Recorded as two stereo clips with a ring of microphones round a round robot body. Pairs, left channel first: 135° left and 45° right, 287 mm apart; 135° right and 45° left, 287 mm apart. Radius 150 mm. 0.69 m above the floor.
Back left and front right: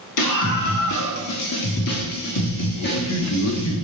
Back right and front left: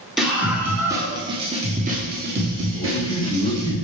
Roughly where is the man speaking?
Behind left.